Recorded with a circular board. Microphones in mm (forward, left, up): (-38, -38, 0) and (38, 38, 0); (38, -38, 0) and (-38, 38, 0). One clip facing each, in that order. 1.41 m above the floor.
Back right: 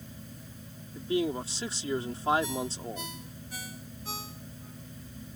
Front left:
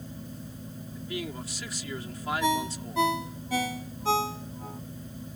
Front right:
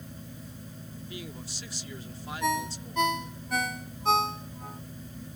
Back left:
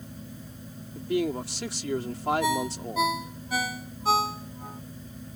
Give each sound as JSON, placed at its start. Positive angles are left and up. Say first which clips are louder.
{"t": 0.9, "sound": "a man speaking", "louder": "back right 7 dB, back left 16 dB", "azimuth_deg": 165}
{"t": 2.4, "sound": "a ringtone", "louder": "front left 6 dB, back left 3 dB", "azimuth_deg": 50}